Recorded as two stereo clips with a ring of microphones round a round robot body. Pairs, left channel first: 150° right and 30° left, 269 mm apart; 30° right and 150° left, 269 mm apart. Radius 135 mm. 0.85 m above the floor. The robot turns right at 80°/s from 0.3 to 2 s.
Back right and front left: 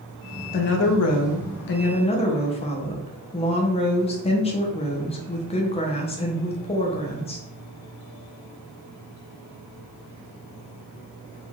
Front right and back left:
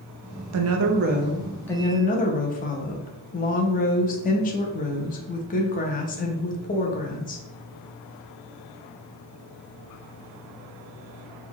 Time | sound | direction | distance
0.5 | a woman speaking | 160° left | 0.6 m